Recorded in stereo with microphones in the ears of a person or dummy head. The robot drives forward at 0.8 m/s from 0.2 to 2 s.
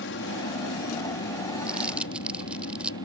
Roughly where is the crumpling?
Centre.